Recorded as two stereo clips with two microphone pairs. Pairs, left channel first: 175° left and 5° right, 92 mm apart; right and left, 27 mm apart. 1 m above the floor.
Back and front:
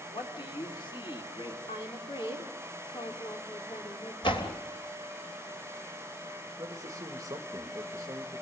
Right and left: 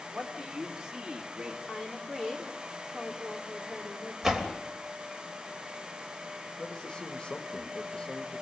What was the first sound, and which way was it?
A man speaking, 155° left.